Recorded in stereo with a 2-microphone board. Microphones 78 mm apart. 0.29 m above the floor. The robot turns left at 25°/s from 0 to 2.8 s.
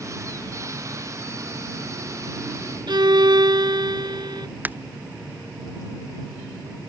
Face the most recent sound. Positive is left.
turn(degrees=-20)  # may be behind; listen again after turning